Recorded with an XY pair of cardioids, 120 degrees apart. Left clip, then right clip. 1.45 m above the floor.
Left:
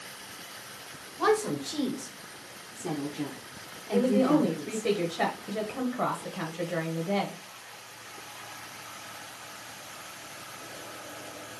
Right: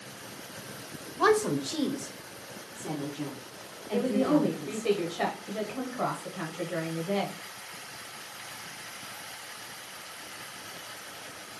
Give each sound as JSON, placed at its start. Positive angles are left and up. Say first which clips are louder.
{"t": 1.2, "sound": "a woman speaking", "louder": "right 2 dB", "azimuth_deg": -25, "distance_m": 1.0}
{"t": 3.9, "sound": "a woman speaking", "louder": "left 2 dB", "azimuth_deg": 25, "distance_m": 1.3}